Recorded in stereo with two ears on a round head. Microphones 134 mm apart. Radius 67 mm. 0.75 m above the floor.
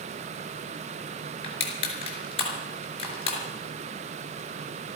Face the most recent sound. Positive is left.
turn(degrees=40)  # may be behind; listen again after turning